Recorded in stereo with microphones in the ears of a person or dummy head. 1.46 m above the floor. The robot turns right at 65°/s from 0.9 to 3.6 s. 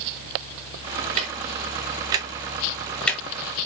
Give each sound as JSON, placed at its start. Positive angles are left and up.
{"t": 1.2, "sound": "ticking", "side_deg": -25, "distance_m": 0.6}